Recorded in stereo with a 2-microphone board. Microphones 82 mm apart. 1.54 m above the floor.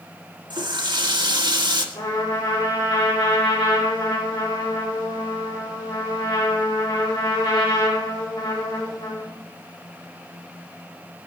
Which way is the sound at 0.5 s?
65° right (ahead or behind).